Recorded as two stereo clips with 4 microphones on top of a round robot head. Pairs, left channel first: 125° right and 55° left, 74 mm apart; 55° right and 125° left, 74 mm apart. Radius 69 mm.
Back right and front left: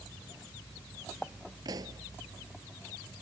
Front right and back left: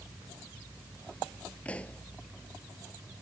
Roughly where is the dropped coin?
I don't hear a dropped coin.